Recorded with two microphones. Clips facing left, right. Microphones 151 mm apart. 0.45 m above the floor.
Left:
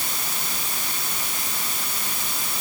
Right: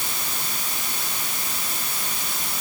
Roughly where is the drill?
I don't hear a drill.